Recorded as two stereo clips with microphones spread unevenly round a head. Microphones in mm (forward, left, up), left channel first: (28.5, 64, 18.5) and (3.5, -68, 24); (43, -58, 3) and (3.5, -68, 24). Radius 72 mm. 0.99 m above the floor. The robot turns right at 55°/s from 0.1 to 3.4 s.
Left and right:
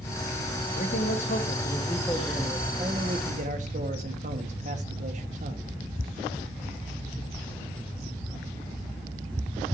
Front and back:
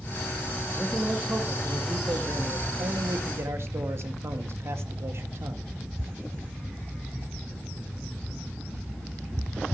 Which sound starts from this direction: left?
A man speaking, at 0.7 s.